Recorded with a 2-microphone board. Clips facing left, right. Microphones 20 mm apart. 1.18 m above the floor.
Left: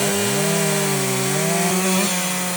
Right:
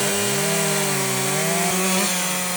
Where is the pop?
I don't hear a pop.